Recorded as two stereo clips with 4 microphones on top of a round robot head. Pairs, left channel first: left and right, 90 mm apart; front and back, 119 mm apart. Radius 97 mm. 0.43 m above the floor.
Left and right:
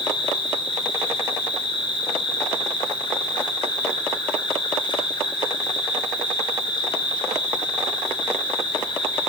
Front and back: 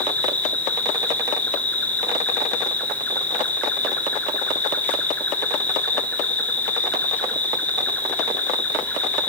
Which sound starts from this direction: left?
An insect, at 0.0 s.